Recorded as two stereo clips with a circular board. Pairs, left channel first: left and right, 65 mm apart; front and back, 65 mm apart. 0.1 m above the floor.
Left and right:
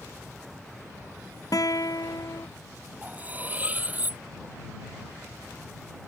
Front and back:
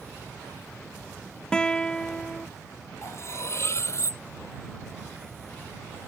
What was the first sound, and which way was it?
A guitar, 75° left.